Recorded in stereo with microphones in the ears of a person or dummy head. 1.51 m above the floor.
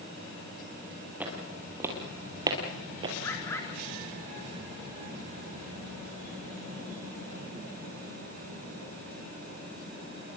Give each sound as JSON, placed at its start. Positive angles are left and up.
{"t": 1.2, "sound": "footsteps", "side_deg": -5, "distance_m": 2.5}
{"t": 3.2, "sound": "a bird", "side_deg": 15, "distance_m": 4.0}